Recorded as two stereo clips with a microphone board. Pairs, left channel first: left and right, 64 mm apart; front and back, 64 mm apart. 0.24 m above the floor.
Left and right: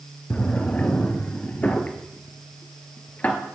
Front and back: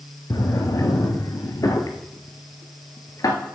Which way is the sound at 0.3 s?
25° left.